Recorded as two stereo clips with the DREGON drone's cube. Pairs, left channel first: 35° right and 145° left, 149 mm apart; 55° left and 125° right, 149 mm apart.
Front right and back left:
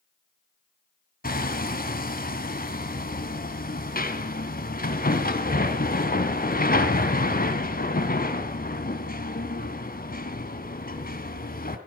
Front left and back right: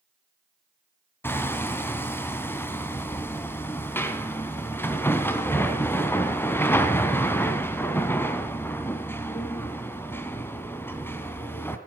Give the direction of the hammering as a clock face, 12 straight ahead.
1 o'clock.